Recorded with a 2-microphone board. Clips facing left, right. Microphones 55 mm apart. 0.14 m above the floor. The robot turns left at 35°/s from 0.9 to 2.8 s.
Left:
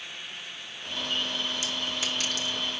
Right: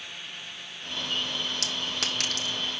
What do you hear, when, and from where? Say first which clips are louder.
1.6 s a clink: even; 80° right, 5 m; by 2.5 s 50° right (ahead or behind), 5 m